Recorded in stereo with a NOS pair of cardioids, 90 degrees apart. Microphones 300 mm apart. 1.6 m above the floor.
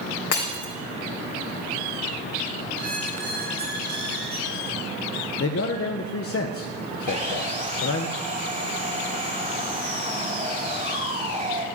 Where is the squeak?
70° right, 5 m.